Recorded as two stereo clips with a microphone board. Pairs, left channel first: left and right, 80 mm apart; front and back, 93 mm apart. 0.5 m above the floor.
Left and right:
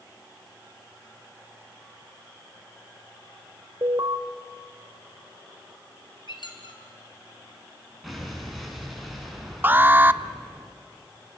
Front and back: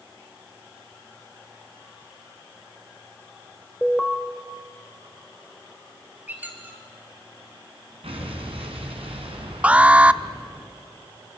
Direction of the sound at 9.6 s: 120° right.